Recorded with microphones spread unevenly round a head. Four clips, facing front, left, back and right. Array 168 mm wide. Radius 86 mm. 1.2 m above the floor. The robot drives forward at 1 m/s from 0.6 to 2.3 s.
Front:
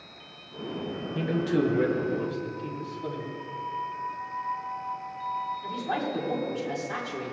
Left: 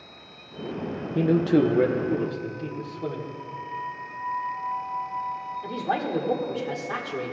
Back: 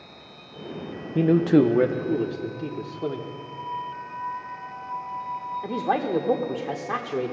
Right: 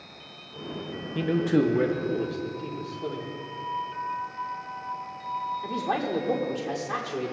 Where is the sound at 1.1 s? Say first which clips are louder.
Left 3 dB, back 9 dB; 145° left, 0.5 m; by 3.3 s 170° left, 1.5 m.